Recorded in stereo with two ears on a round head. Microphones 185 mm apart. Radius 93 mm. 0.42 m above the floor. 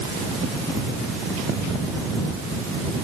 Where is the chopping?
No chopping in this recording.